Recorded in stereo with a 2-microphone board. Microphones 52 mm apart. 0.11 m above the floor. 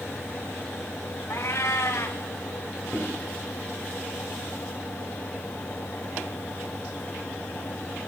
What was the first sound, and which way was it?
A cat meowing, 60° left (ahead or behind).